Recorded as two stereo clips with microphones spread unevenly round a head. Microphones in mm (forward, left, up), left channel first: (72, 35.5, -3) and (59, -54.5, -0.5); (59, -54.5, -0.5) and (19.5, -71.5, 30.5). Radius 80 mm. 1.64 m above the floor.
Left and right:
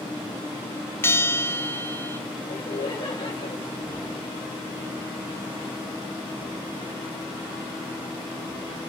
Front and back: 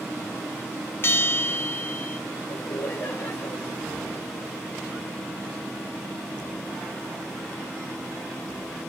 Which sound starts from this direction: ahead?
A bell, at 1.0 s.